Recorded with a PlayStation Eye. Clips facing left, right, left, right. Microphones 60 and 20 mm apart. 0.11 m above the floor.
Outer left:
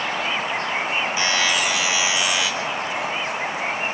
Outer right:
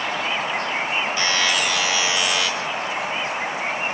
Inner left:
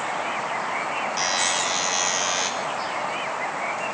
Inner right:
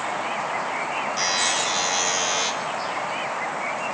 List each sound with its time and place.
1.2 s a buzzer: 15° left (ahead or behind), 5.5 m